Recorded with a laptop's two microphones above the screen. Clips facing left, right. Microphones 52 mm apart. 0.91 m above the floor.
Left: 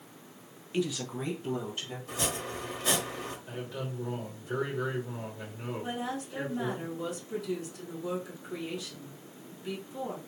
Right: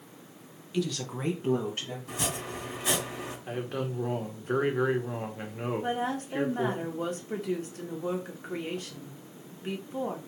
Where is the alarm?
No alarm in this recording.